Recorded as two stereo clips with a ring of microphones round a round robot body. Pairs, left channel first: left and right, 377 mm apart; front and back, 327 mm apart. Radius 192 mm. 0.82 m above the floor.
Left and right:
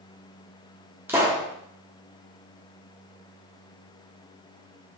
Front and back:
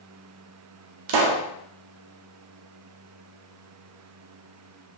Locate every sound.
1.1 s a pop: 175° right, 0.5 m